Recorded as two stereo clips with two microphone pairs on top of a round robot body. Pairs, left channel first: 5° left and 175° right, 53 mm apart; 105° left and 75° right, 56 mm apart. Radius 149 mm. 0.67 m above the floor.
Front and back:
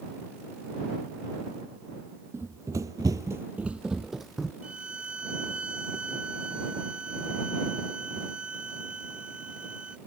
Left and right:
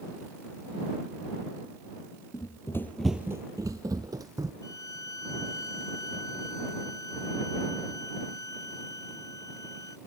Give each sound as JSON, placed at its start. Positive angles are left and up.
{"t": 2.3, "sound": "running footsteps", "azimuth_deg": 140}
{"t": 4.6, "sound": "a violin", "azimuth_deg": 115}